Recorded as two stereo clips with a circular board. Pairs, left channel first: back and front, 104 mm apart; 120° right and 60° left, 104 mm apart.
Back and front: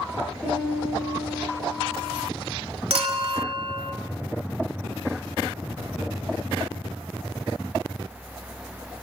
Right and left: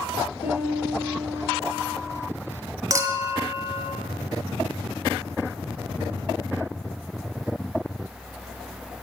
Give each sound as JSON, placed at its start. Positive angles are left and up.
{"t": 0.4, "sound": "a piano", "azimuth_deg": -95, "distance_m": 7.0}
{"t": 2.9, "sound": "a clink", "azimuth_deg": 5, "distance_m": 1.3}